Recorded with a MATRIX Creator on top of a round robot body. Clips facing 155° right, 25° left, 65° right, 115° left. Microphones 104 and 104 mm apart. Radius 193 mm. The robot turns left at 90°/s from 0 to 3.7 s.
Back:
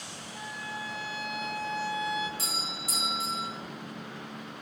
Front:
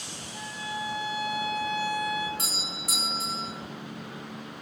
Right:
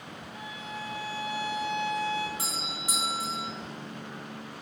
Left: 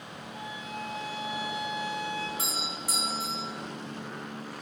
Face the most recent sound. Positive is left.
turn(degrees=-65)